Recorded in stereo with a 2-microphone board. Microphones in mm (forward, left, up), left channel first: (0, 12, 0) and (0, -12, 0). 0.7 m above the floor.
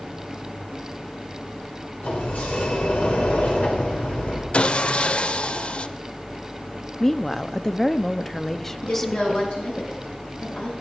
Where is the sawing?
50° left (ahead or behind), 0.5 m.